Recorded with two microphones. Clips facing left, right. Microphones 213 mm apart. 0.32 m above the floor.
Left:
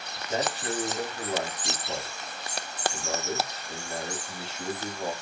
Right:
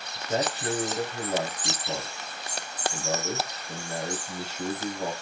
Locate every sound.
0.1 s a man speaking: 40° right (ahead or behind), 1.3 m